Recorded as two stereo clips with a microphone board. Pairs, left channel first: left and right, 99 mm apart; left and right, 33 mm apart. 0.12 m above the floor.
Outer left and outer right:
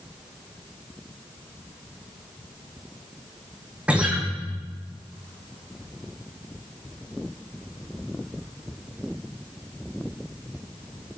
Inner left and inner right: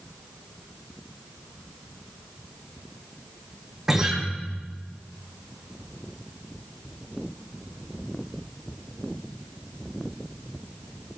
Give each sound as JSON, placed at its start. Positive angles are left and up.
{"t": 3.9, "sound": "a guitar", "side_deg": -10, "distance_m": 2.0}